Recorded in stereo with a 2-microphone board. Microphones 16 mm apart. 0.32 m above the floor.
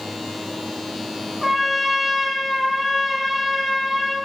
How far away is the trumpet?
About 0.9 m.